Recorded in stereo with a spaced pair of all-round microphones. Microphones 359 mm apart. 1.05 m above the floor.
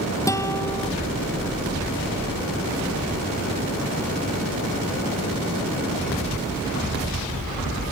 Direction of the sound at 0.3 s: 10° left (ahead or behind).